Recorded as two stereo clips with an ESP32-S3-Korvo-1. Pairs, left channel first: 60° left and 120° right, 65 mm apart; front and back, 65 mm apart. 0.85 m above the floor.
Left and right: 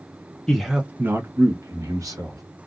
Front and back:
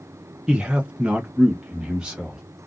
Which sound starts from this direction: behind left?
A man speaking, at 0.5 s.